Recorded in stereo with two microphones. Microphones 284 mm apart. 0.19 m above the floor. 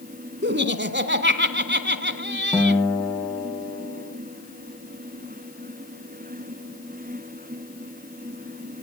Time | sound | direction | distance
0.4 | laughter | 40° right (ahead or behind) | 1.5 m
2.5 | a guitar | centre (ahead or behind) | 4 m